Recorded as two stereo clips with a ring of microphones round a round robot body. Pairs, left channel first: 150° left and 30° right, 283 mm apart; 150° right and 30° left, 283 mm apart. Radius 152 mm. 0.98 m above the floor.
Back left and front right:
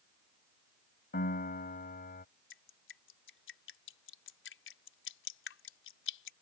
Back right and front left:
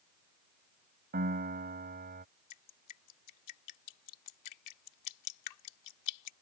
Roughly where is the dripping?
Behind.